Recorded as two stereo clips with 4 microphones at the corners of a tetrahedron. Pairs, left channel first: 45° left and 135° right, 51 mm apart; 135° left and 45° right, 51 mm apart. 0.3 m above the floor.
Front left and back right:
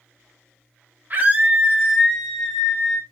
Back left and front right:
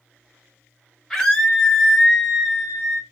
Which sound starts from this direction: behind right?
A scream, at 1.1 s.